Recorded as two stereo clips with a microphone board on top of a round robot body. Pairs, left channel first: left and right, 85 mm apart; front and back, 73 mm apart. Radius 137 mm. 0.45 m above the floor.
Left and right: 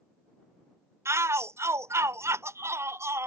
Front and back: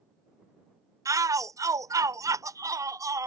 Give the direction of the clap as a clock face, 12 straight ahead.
I don't hear a clap.